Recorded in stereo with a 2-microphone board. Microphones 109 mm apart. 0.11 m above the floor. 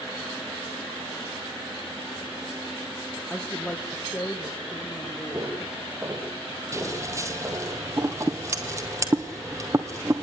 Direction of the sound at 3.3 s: 15° left (ahead or behind).